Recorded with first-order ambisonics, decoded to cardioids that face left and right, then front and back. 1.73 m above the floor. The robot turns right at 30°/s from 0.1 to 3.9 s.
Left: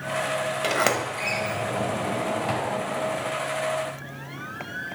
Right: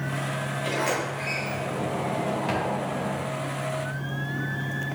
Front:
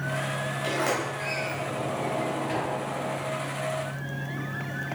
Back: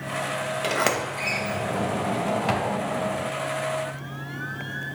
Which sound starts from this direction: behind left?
A sliding door, at 0.6 s.